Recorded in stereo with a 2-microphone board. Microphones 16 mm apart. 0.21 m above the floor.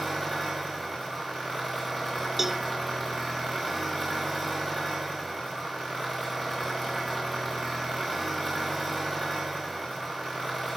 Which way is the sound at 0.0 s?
5° right (ahead or behind).